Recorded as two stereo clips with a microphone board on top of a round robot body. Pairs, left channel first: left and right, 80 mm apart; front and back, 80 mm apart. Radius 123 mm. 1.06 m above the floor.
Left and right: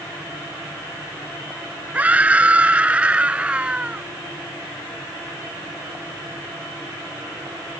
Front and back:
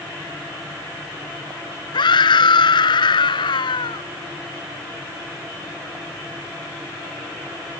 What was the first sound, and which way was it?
A scream, 20° right.